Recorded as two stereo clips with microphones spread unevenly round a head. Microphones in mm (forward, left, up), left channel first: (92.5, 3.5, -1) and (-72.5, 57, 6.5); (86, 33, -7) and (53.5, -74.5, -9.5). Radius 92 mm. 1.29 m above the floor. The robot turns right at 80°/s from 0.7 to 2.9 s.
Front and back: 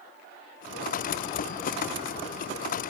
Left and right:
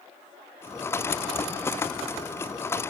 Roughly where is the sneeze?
I don't hear a sneeze.